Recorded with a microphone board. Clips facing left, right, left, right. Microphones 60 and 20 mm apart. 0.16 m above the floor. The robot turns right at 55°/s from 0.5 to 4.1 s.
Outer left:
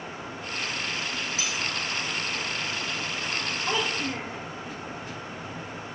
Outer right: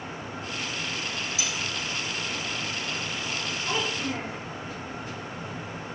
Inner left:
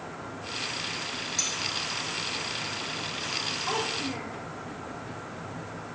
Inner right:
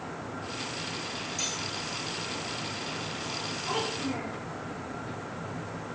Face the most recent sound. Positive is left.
turn(degrees=20)  # may be behind; listen again after turning